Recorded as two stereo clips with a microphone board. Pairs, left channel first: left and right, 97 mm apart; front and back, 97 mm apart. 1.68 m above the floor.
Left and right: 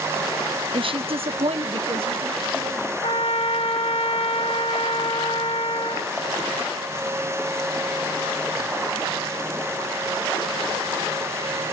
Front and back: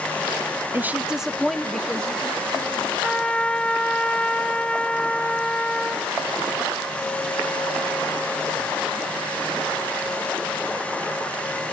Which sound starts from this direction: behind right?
A woman speaking, at 0.7 s.